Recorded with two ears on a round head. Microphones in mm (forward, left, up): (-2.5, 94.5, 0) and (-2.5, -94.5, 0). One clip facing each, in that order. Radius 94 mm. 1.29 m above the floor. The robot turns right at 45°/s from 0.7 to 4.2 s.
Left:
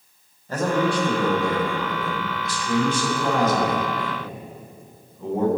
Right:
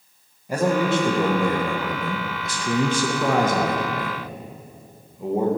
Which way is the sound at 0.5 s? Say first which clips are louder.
Right 1 dB; 170° right.